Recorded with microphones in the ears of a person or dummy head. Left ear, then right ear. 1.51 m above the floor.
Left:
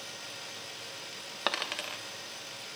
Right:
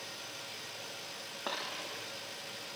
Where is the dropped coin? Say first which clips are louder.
Left 7 dB; 40° left (ahead or behind), 1.2 m.